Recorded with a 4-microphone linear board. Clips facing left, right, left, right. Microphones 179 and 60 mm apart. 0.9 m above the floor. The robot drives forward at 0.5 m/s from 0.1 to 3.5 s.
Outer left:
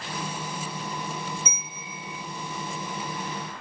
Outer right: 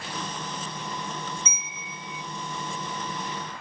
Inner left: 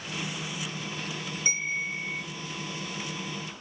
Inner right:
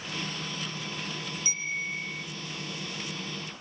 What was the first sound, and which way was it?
A bell, 60° left (ahead or behind).